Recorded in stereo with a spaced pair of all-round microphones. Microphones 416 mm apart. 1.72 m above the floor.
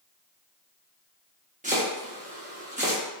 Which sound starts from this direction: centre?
Chopping, at 1.6 s.